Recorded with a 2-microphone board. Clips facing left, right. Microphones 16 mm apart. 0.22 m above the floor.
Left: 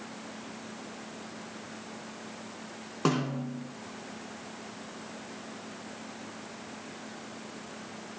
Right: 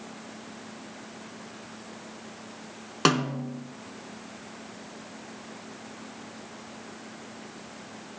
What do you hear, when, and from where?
3.0 s a snare drum: 60° right (ahead or behind), 1.1 m